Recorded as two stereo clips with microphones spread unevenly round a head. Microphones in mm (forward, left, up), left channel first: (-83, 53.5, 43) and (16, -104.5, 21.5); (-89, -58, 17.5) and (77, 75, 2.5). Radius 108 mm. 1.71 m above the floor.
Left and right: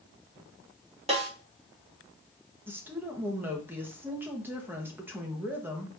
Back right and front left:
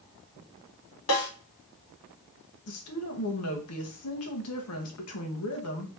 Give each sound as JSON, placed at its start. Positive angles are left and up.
{"t": 1.1, "sound": "a snare drum", "azimuth_deg": -115, "distance_m": 3.0}
{"t": 2.7, "sound": "a woman speaking", "azimuth_deg": -140, "distance_m": 1.5}